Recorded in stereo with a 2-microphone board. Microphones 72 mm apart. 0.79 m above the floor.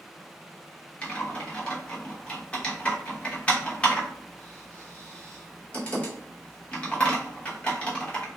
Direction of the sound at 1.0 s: 20° left (ahead or behind).